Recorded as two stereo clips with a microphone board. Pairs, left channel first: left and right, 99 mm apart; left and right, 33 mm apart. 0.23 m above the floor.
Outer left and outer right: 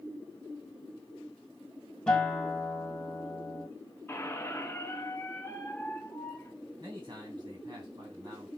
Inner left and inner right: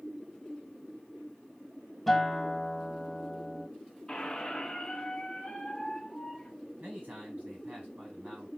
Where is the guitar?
5° left (ahead or behind), 1.3 m.